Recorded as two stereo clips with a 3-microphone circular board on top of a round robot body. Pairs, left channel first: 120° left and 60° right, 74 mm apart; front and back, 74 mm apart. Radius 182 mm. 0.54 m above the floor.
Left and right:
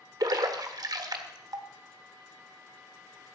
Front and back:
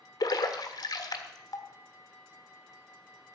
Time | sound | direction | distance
0.2 | a splash | 30° right | 1.5 m